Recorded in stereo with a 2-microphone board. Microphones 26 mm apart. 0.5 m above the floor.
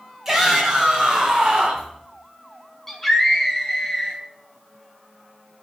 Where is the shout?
15° right (ahead or behind), 3.5 m; by 1.9 s 35° right (ahead or behind), 4 m.